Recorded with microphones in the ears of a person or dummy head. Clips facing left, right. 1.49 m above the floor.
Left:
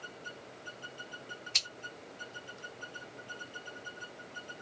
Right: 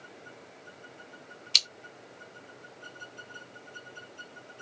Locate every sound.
1.5 s scissors: 45° right (ahead or behind), 1.5 m